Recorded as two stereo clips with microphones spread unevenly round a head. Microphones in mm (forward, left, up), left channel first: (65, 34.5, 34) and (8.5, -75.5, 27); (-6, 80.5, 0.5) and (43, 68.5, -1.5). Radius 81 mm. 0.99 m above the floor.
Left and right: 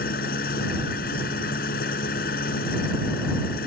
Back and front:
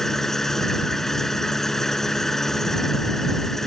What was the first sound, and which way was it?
An engine running, 85° left.